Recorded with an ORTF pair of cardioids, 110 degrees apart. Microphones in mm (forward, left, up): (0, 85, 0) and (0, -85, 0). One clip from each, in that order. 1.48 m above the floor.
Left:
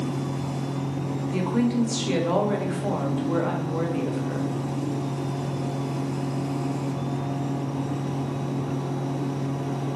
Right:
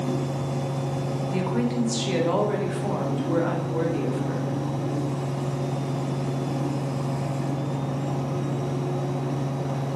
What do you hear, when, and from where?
0.0 s a fan: 65° right, 1.3 m
1.3 s a woman speaking: 5° left, 0.7 m